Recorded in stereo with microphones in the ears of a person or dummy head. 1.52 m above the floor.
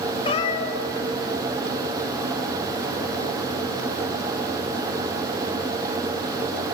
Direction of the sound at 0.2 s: 30° left (ahead or behind).